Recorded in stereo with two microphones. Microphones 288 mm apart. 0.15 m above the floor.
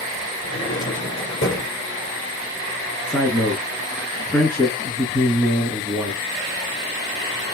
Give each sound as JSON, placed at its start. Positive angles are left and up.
{"t": 0.4, "sound": "a drawer", "side_deg": 45, "distance_m": 1.6}
{"t": 3.0, "sound": "a man speaking", "side_deg": 10, "distance_m": 2.0}